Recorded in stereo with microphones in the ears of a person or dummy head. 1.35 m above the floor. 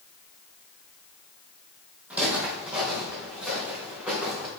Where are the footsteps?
5° right (ahead or behind), 3 m.